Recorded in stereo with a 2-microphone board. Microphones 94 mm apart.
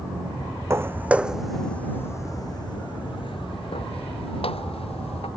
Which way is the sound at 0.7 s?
25° right (ahead or behind).